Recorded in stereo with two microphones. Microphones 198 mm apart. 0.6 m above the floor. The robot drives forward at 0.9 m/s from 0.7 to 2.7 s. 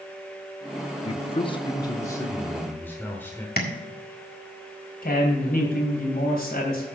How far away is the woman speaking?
About 3 m.